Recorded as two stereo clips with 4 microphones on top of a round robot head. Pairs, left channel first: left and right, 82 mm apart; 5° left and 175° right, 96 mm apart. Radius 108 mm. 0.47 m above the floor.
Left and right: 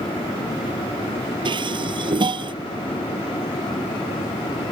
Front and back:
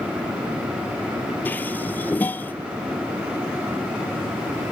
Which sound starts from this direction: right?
Dishes clattering, at 1.4 s.